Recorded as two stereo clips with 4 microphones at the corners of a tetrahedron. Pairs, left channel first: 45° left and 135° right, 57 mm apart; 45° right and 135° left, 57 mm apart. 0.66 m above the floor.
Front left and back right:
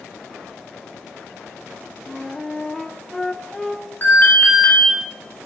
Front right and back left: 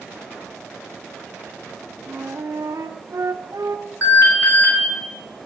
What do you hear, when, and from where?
2.0 s a flute: 130° left, 0.9 m
4.0 s an alarm: 5° right, 6 m